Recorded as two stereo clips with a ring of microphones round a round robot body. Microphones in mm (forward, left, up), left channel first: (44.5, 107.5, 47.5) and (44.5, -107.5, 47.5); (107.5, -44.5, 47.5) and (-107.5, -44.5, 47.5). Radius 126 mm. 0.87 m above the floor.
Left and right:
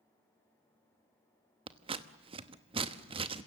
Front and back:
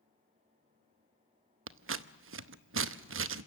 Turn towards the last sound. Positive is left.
turn(degrees=-155)